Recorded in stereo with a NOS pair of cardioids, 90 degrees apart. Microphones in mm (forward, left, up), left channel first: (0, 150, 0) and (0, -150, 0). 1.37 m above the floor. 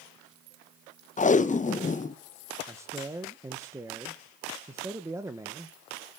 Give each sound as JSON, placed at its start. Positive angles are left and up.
{"t": 1.2, "sound": "tape being pulled", "azimuth_deg": 25, "distance_m": 1.0}
{"t": 2.7, "sound": "a man speaking", "azimuth_deg": -10, "distance_m": 1.4}